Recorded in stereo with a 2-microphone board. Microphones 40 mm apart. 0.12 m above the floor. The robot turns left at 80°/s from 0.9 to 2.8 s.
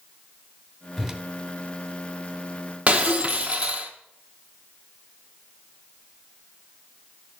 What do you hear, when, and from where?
1.0 s a whoosh: centre (ahead or behind), 0.7 m; by 1.2 s 20° right (ahead or behind), 0.7 m
2.9 s breaking glass: 30° right (ahead or behind), 1.1 m